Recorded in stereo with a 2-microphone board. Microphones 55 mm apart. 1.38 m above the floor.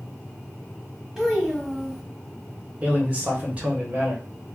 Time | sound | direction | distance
1.2 | a child speaking | 10° right (ahead or behind) | 1.1 m
2.8 | a man speaking | 25° right (ahead or behind) | 1.1 m